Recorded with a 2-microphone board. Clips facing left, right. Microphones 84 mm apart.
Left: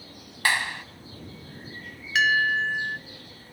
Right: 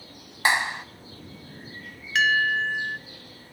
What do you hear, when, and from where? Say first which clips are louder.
0.5 s a clap: right 2 dB; 20° right (ahead or behind), 1.3 m
2.1 s a bell: even; centre (ahead or behind), 1.1 m